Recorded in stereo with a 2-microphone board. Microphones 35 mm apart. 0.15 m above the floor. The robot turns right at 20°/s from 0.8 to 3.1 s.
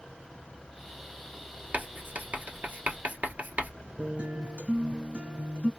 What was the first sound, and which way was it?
Writing, 65° right (ahead or behind).